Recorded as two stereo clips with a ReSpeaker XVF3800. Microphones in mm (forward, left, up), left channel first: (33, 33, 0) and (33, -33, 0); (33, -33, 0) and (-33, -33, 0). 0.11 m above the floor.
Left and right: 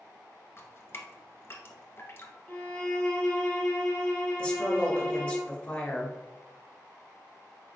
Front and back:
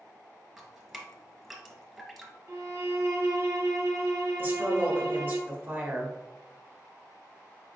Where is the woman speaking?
150° left, 1.3 m.